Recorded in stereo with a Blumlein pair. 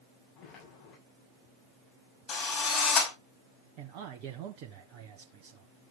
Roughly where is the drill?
Ahead left.